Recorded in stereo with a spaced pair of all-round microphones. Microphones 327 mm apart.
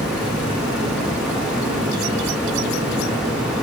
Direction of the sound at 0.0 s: Centre (ahead or behind).